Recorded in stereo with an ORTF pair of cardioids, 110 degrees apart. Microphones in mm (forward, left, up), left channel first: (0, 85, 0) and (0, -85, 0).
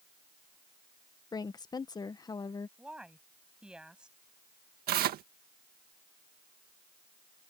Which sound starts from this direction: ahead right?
Tearing paper, at 4.9 s.